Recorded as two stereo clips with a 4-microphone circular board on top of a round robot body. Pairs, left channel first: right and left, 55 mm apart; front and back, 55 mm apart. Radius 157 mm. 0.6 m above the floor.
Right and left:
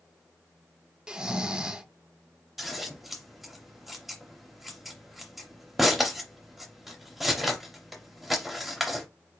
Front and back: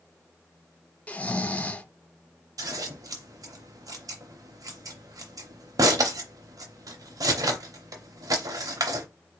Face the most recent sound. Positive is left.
turn(degrees=180)